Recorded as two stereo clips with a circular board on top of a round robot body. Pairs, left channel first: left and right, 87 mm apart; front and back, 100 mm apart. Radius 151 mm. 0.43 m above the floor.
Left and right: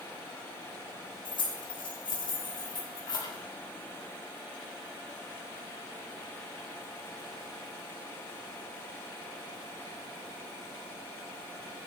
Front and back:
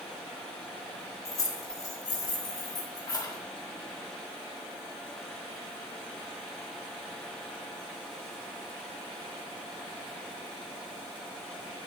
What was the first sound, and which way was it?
Keys jangling, 60° left.